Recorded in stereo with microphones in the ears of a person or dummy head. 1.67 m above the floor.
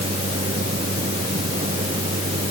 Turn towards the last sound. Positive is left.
turn(degrees=-40)  # may be behind; listen again after turning